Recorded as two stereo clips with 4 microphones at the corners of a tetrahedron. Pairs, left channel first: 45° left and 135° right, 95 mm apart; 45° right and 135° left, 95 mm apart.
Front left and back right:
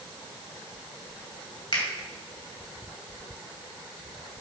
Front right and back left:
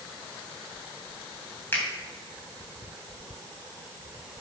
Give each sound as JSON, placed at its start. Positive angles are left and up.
{"t": 1.7, "sound": "a finger snap", "azimuth_deg": 20, "distance_m": 3.0}